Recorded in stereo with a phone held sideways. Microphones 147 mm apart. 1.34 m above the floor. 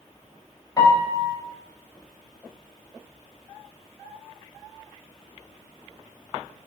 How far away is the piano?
About 0.6 m.